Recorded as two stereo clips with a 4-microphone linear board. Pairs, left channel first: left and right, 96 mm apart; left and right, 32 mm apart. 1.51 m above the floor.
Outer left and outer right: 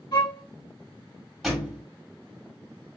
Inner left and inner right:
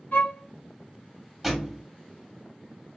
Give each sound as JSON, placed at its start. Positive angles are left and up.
{"t": 0.1, "sound": "a violin", "side_deg": 60, "distance_m": 3.0}
{"t": 1.4, "sound": "a thud", "side_deg": -5, "distance_m": 1.6}